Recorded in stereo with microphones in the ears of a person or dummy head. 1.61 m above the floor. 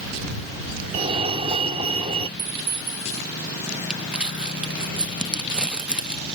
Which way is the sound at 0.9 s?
35° right (ahead or behind).